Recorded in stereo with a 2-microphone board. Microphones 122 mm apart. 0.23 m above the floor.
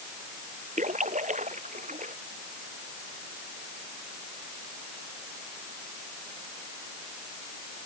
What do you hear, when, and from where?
0.8 s a splash: 85° right